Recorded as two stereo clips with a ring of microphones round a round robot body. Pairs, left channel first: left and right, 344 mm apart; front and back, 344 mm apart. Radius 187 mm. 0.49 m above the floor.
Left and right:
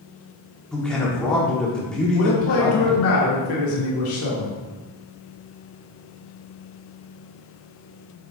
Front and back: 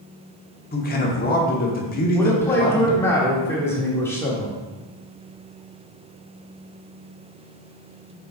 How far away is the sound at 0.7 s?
About 1.1 m.